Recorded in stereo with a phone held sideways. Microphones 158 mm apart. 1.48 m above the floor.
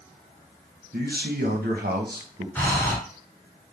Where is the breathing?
10° left (ahead or behind), 2.5 m.